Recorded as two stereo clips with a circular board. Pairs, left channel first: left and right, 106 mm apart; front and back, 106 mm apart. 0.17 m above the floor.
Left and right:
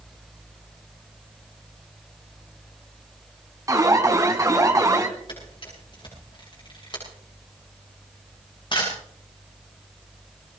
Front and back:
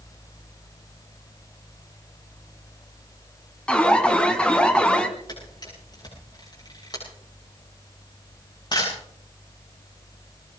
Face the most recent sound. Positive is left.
turn(degrees=50)